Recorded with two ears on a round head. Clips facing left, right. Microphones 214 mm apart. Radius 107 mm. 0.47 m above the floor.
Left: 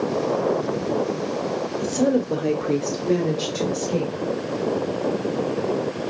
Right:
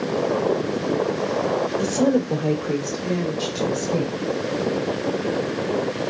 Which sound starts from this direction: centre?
A woman speaking, at 1.8 s.